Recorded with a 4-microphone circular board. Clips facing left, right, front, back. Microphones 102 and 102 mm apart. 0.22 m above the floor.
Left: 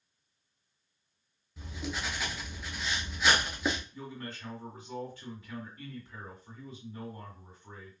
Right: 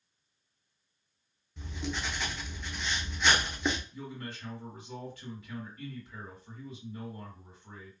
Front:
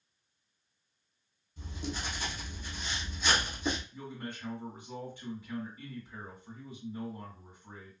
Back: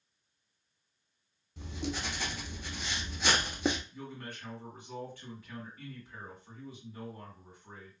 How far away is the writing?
About 0.6 m.